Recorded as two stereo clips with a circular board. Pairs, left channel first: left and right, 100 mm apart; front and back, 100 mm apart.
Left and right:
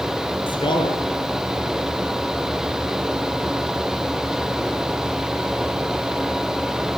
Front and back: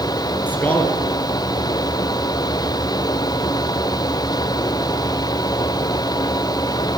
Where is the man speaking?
70° left, 2.5 m.